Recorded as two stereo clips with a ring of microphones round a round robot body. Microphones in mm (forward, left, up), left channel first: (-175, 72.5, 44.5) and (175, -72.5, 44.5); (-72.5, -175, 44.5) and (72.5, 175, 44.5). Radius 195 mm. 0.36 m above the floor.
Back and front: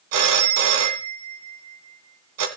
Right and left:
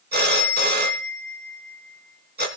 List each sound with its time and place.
0.1 s a phone ringing: straight ahead, 2.5 m